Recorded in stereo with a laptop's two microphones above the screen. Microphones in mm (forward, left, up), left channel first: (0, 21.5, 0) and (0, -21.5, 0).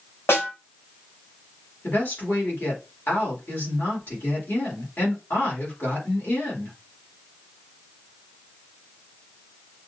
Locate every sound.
0.3 s a snare drum: 80° left, 3.5 m
1.8 s a woman speaking: 60° left (ahead or behind), 3 m